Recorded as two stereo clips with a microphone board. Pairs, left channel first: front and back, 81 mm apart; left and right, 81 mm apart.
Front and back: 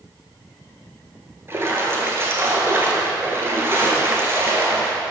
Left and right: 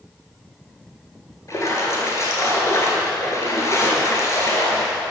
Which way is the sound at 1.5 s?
130° left.